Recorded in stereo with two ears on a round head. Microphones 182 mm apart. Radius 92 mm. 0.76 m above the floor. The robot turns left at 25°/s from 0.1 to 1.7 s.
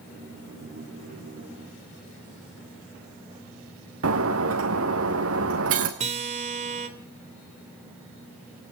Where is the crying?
I don't hear crying.